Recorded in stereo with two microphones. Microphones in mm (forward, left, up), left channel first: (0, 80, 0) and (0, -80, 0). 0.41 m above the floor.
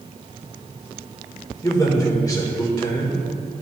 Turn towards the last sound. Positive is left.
turn(degrees=20)  # may be behind; listen again after turning